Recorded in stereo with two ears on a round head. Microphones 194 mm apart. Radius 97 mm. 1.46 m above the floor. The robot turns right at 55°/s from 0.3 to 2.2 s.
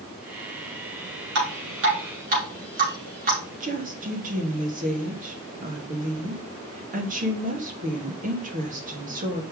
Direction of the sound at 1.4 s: 85° right.